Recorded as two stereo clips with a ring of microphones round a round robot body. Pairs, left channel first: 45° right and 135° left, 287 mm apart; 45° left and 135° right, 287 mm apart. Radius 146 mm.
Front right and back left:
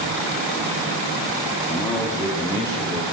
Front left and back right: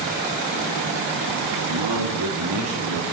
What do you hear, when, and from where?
1.7 s a man speaking: 125° right, 1.7 m; by 3.0 s 120° right, 3.5 m